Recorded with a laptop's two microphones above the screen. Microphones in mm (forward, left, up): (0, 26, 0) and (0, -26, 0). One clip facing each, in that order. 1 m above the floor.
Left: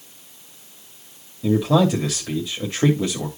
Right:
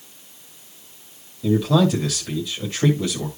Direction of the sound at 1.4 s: 35° left (ahead or behind).